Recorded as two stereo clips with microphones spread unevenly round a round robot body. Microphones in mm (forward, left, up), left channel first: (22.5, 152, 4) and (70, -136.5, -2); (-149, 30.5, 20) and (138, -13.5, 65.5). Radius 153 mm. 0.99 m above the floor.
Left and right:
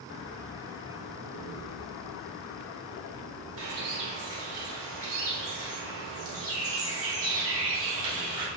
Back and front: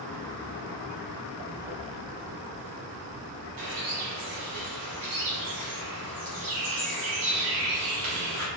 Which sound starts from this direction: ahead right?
A bird, at 3.6 s.